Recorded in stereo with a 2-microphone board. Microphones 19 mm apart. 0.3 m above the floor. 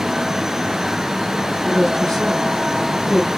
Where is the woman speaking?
10° left (ahead or behind), 7.5 m.